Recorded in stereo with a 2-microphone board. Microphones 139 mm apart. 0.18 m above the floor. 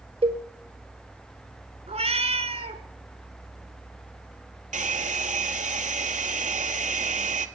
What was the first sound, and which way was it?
A cowbell, 45° right (ahead or behind).